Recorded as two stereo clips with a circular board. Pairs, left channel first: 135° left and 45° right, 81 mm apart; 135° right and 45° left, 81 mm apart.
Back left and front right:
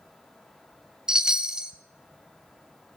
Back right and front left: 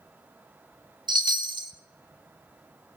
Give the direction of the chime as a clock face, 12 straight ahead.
11 o'clock.